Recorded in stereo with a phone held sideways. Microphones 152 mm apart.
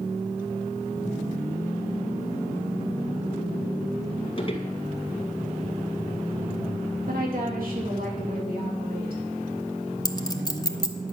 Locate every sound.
4.4 s footsteps: 35° left (ahead or behind), 1.8 m
7.1 s a woman speaking: 70° right (ahead or behind), 2.5 m
10.1 s a clink: 25° left (ahead or behind), 0.8 m